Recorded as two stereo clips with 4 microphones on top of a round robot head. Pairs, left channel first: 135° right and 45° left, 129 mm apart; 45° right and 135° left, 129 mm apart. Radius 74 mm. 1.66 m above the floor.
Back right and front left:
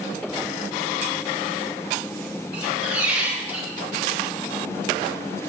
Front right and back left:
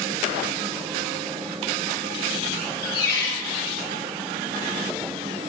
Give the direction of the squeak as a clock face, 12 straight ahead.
1 o'clock.